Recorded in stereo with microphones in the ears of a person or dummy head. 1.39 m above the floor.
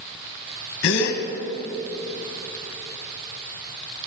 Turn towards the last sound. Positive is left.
turn(degrees=75)  # may be behind; listen again after turning